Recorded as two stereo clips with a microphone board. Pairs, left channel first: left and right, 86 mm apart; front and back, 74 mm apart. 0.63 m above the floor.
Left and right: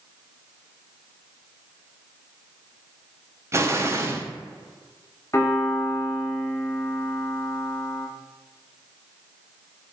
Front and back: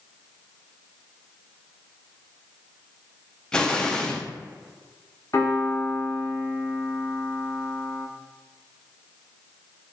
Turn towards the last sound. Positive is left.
turn(degrees=40)